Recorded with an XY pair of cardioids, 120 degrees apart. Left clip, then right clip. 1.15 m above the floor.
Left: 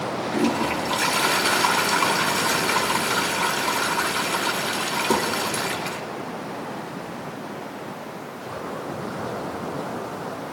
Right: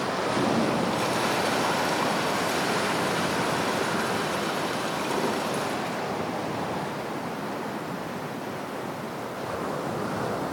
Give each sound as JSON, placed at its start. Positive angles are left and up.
{"t": 0.3, "sound": "a toilet flushing", "azimuth_deg": 70, "distance_m": 4.0}